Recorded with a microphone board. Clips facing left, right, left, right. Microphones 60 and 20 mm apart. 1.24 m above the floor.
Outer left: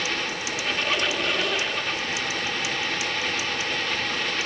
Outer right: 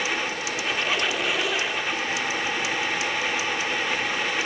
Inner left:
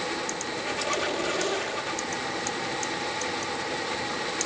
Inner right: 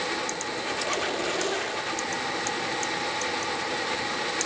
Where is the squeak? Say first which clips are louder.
Even, inner left 1 dB; 5° right (ahead or behind), 1.0 m.